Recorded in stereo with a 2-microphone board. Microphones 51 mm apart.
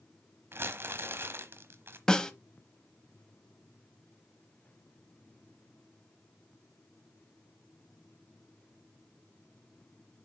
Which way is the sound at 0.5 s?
50° right (ahead or behind).